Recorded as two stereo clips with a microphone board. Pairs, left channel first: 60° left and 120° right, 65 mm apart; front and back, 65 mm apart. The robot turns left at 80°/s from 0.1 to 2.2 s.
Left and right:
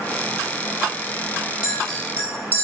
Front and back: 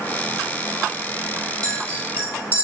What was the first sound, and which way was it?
A clink, 170° left.